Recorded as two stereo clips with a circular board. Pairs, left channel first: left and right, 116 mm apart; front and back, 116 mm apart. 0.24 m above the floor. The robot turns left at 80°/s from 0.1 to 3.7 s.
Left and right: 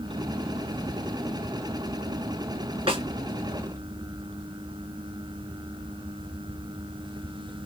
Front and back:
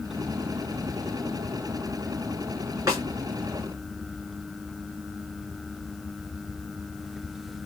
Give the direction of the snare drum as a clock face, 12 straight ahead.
4 o'clock.